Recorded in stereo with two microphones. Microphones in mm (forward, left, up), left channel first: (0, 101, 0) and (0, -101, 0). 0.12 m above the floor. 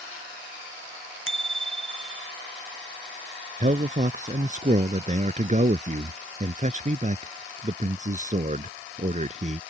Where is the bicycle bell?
80° left.